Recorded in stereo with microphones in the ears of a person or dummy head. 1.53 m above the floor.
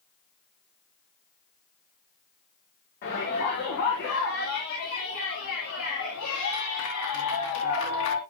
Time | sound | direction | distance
3.0 | a shout | 50° left (ahead or behind) | 5.5 m